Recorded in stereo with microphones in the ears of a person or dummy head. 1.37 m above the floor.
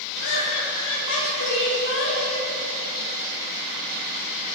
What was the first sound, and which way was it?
Laughter, 70° left (ahead or behind).